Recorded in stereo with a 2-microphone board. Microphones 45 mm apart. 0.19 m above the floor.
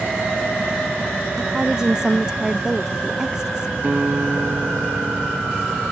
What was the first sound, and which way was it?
A woman speaking, 15° right (ahead or behind).